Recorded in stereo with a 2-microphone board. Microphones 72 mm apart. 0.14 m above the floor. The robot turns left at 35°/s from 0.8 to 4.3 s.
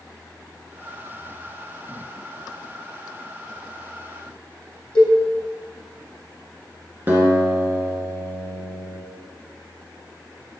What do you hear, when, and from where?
5.0 s a cowbell: 15° left (ahead or behind), 3.5 m
7.1 s a guitar: 25° right (ahead or behind), 1.9 m